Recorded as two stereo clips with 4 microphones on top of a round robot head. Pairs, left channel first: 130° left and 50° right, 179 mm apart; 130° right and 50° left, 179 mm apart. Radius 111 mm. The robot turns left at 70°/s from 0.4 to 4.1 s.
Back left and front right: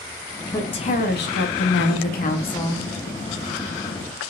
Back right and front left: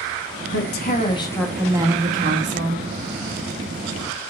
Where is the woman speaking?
150° right, 1.6 m; by 2.9 s 40° left, 1.6 m.